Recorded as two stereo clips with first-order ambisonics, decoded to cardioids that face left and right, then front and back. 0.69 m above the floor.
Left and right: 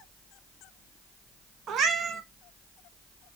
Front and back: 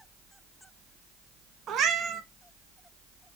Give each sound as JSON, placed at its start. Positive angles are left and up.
{"t": 1.7, "sound": "a cat meowing", "azimuth_deg": -135, "distance_m": 0.8}